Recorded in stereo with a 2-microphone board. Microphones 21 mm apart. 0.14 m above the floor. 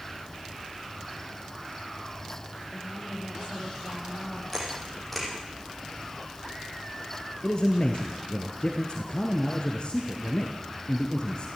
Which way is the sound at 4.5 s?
5° left (ahead or behind).